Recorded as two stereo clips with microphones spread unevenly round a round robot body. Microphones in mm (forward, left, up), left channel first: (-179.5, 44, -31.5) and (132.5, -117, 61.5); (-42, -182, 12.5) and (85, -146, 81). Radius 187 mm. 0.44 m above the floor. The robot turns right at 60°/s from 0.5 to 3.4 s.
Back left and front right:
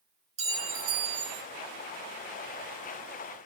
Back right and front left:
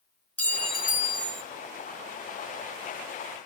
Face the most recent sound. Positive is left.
turn(degrees=70)